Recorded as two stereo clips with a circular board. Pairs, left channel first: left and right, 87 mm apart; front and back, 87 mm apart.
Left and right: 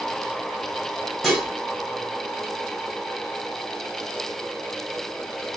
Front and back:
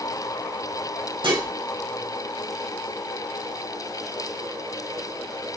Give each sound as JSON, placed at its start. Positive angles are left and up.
{"t": 1.2, "sound": "dishes clattering", "azimuth_deg": 180, "distance_m": 1.5}